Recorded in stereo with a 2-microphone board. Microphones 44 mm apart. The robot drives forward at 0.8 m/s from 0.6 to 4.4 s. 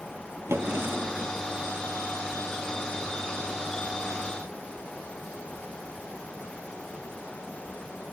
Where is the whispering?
I don't hear whispering.